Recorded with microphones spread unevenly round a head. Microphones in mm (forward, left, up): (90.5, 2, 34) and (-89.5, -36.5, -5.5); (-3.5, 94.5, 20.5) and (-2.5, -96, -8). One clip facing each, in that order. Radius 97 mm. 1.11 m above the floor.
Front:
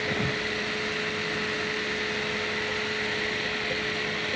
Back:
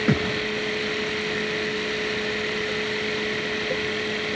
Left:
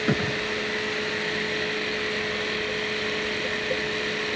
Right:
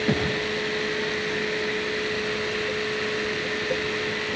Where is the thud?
175° left, 8.5 m.